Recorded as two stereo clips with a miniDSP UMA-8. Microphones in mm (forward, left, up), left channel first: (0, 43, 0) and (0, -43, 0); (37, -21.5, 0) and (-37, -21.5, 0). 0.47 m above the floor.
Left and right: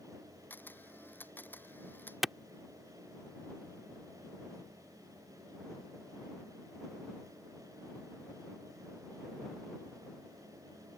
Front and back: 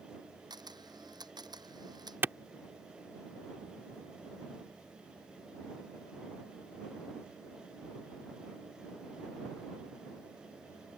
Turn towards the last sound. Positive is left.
turn(degrees=-175)